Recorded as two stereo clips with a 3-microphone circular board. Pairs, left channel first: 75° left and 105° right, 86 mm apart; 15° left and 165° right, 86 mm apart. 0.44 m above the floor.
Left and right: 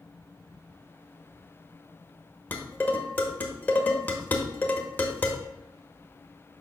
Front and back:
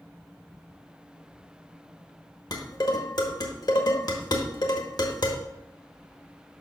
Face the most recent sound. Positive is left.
turn(degrees=15)